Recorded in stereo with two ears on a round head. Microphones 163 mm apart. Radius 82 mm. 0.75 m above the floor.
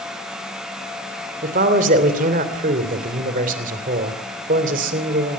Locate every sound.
1.4 s a man speaking: 45° right (ahead or behind), 3 m